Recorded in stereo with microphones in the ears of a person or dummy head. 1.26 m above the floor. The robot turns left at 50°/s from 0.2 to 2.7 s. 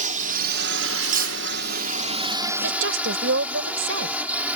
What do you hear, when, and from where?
0.0 s a drone: 50° right; by 4.6 s 175° right
1.0 s cutlery clinking: 45° right (ahead or behind); by 1.4 s 60° right (ahead or behind)
2.6 s a woman speaking: 75° right (ahead or behind); by 4.2 s 80° right